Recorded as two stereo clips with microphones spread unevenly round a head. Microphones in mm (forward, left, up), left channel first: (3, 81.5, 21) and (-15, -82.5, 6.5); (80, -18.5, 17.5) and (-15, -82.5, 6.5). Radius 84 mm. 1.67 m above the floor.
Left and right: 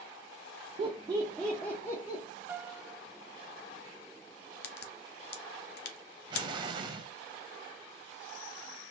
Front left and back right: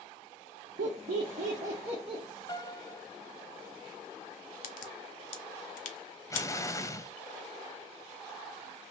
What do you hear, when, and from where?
0.8 s laughter: 155° right, 0.6 m; by 2.2 s 145° left, 0.8 m
2.5 s a piano: 15° right, 0.6 m
4.6 s a crack: 50° left, 0.6 m
6.3 s an explosion: 30° right, 0.6 m